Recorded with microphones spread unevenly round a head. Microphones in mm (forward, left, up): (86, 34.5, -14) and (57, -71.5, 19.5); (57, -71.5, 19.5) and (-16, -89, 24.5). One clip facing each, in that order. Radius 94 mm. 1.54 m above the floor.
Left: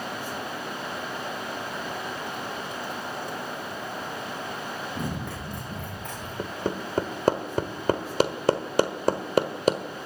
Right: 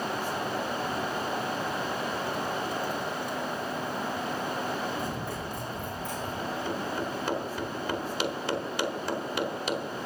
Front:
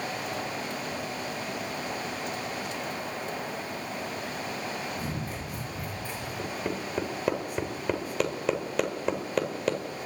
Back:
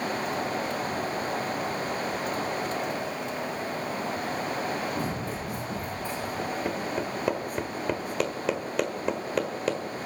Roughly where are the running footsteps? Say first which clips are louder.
Even, back 4 dB; behind left.